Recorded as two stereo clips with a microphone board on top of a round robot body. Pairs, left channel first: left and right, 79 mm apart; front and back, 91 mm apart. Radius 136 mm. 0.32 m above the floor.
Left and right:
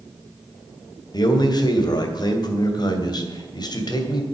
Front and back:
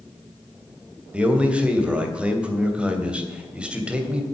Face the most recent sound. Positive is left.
turn(degrees=105)